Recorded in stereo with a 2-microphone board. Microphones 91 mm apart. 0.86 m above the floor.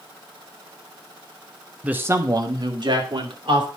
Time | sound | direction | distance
1.8 | a man speaking | 15° right (ahead or behind) | 0.8 m